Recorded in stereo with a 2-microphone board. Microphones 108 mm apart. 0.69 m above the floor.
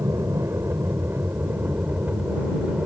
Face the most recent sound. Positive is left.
turn(degrees=-10)  # may be behind; listen again after turning